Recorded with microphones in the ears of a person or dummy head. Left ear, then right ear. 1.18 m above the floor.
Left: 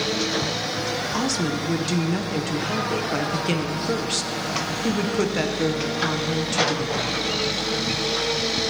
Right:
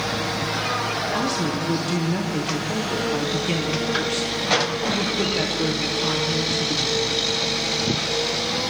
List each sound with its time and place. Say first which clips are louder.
1.1 s a woman speaking: right 1 dB; 15° left (ahead or behind), 0.6 m